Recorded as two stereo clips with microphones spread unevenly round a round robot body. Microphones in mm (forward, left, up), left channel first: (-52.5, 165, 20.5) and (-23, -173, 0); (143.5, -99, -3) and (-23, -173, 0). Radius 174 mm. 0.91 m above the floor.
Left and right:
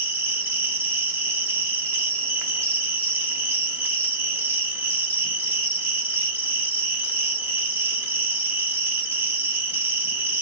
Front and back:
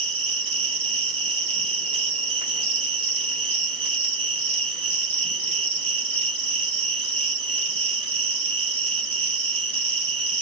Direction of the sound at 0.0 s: 155° right.